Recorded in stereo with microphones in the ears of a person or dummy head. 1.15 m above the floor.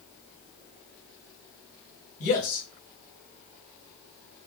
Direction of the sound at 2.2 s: 40° left (ahead or behind).